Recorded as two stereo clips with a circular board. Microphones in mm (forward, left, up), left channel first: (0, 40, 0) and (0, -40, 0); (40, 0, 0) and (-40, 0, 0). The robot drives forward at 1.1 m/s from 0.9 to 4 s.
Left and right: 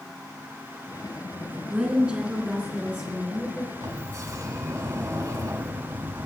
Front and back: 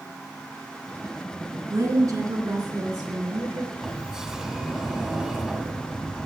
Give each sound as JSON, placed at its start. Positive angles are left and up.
{"t": 1.4, "sound": "a woman speaking", "azimuth_deg": -165, "distance_m": 2.0}
{"t": 3.8, "sound": "a sliding door", "azimuth_deg": -90, "distance_m": 1.2}